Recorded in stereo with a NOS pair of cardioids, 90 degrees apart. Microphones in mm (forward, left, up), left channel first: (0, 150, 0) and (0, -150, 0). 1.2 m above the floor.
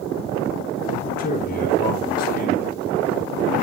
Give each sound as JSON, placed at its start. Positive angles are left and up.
{"t": 1.0, "sound": "a man speaking", "azimuth_deg": 30, "distance_m": 8.0}